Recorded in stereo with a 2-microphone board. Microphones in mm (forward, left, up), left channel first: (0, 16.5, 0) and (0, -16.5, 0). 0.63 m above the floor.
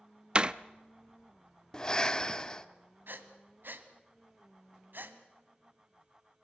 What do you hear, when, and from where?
0.3 s a door slam: 30° right (ahead or behind), 0.5 m
1.7 s breathing: 20° left (ahead or behind), 0.9 m
3.1 s breathing: 75° right (ahead or behind), 1.6 m